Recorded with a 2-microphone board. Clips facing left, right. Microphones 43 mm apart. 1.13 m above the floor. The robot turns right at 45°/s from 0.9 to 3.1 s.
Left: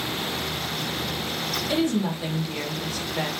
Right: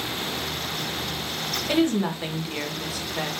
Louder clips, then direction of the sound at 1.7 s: Right 2 dB; 60° right.